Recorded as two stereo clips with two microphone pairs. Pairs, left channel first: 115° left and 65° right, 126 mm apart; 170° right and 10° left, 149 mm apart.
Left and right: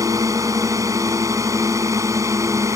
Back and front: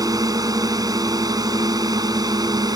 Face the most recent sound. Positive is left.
turn(degrees=-25)